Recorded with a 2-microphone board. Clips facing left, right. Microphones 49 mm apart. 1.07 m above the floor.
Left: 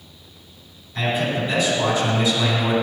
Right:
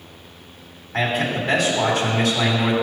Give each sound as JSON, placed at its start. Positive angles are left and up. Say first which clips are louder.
{"t": 0.9, "sound": "a man speaking", "louder": "right 1 dB", "side_deg": -80, "distance_m": 3.0}